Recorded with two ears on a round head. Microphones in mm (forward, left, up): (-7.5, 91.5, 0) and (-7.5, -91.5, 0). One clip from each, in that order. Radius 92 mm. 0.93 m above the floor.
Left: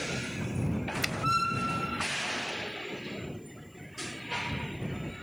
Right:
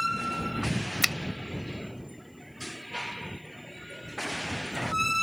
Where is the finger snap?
45° right (ahead or behind).